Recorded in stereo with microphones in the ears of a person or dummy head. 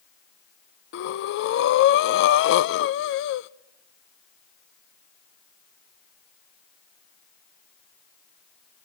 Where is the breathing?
65° left (ahead or behind), 0.6 m.